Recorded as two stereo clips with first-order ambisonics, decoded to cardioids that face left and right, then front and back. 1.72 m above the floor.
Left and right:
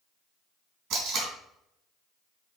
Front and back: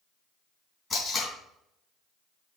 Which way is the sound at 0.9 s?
65° right.